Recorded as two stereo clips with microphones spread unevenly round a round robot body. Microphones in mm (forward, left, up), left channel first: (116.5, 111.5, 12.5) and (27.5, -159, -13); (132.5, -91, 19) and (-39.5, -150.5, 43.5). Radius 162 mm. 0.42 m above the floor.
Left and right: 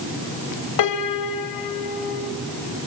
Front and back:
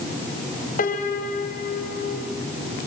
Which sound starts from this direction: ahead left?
A piano, at 0.8 s.